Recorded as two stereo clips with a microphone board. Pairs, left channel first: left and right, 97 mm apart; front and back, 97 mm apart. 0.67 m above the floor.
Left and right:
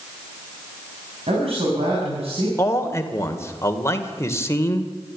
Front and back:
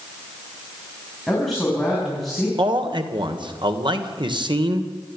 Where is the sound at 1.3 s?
90° right, 6.5 m.